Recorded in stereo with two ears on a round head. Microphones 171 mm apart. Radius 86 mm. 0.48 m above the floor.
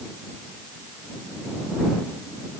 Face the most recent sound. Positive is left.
No sound to turn to.